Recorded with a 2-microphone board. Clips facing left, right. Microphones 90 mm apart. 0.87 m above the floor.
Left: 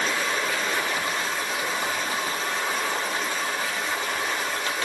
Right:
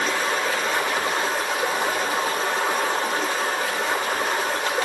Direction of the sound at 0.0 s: 70° right (ahead or behind).